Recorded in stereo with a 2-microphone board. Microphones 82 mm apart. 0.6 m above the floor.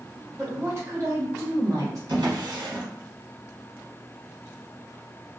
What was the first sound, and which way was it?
A woman speaking, 25° right (ahead or behind).